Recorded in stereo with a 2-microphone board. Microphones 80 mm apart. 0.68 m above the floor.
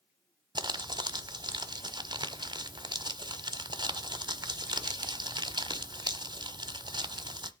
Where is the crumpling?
65° right (ahead or behind), 1.0 m.